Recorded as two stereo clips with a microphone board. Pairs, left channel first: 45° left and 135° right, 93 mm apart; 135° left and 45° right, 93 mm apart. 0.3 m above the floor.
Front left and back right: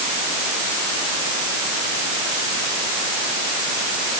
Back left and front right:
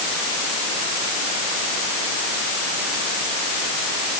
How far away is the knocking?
I don't hear knocking.